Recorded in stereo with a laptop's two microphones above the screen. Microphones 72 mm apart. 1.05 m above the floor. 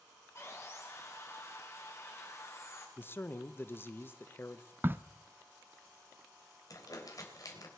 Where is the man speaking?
30° left (ahead or behind), 0.7 m.